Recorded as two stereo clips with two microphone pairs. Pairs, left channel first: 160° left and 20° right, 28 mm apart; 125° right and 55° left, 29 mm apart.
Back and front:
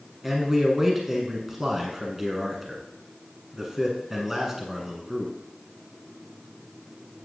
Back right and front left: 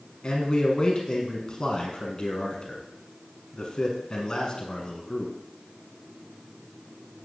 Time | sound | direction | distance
0.2 | a man speaking | 95° right | 1.2 m